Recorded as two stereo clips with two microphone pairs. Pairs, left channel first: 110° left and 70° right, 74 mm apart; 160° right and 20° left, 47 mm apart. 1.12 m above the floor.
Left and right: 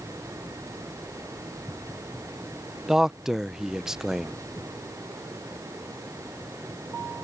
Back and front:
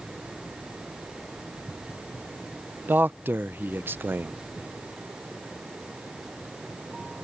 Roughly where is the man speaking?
Ahead.